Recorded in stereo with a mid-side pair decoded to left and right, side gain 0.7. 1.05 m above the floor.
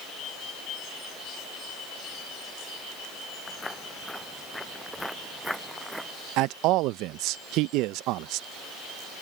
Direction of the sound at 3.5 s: 10° left.